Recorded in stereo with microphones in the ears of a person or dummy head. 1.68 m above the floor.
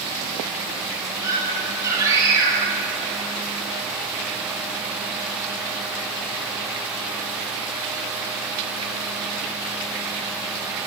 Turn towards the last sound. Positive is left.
turn(degrees=-20)  # may be behind; listen again after turning